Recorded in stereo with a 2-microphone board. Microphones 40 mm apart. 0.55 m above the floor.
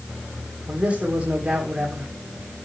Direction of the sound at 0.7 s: 30° right (ahead or behind).